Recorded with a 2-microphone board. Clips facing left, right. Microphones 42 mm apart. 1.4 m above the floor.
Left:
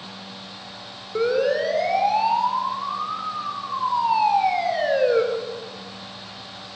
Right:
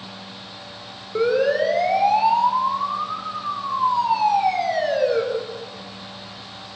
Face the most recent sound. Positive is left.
turn(degrees=20)  # may be behind; listen again after turning